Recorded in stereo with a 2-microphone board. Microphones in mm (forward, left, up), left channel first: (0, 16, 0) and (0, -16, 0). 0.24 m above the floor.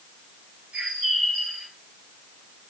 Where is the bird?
45° right (ahead or behind), 3.5 m.